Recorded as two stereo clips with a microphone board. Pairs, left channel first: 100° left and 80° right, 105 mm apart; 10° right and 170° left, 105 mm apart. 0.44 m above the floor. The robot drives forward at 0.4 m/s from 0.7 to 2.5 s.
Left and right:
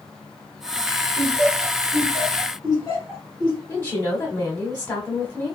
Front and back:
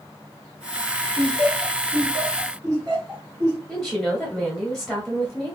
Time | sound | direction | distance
1.2 | laughter | 125° left | 1.7 m
3.7 | a woman speaking | 80° left | 0.9 m